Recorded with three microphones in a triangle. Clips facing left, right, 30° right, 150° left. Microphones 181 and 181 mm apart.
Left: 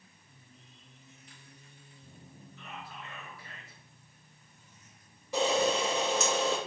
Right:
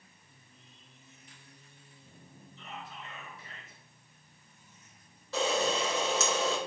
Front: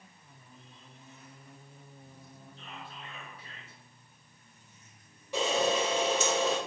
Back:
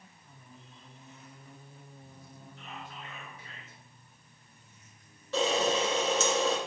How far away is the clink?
No clink in this recording.